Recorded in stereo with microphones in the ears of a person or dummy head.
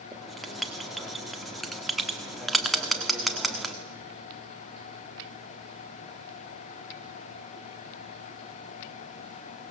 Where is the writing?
Centre (ahead or behind), 1.5 m.